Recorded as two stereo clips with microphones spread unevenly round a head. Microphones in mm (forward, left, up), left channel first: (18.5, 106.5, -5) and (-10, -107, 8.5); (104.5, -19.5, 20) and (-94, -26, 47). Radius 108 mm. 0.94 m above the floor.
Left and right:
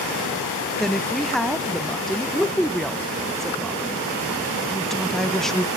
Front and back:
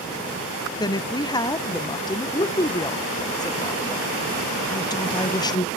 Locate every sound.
0.8 s a woman speaking: 5° left, 0.5 m